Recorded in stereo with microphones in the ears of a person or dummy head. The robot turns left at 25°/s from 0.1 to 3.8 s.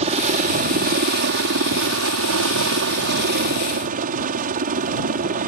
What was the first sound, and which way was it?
A helicopter, 40° right.